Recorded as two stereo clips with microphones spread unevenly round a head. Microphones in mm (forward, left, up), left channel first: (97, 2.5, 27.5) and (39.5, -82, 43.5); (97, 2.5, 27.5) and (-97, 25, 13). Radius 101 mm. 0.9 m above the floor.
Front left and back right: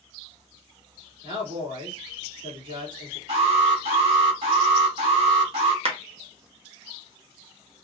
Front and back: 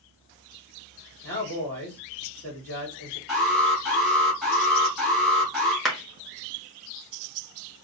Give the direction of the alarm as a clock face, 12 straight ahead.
3 o'clock.